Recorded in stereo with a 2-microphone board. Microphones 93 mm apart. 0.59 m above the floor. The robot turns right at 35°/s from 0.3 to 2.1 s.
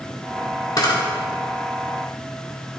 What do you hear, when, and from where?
0.8 s a camera shutter: 45° left (ahead or behind), 1.8 m; by 0.9 s 40° left (ahead or behind), 1.8 m